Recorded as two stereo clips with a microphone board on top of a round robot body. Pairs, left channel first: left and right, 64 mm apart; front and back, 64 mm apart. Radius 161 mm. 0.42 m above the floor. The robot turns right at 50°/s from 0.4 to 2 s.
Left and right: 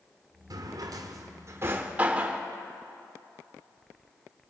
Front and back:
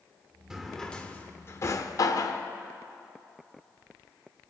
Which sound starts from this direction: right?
A drawer, at 0.5 s.